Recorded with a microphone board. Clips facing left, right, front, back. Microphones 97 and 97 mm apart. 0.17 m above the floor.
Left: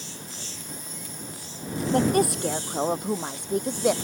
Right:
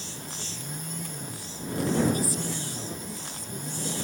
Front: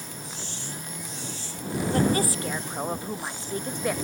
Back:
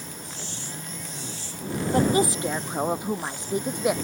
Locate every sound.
1.9 s a woman speaking: 110° left; by 3.9 s 105° left